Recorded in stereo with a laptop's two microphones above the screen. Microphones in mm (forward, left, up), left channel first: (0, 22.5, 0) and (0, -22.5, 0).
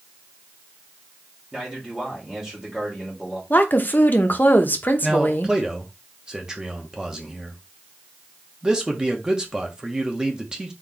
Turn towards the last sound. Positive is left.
turn(degrees=-15)  # may be behind; listen again after turning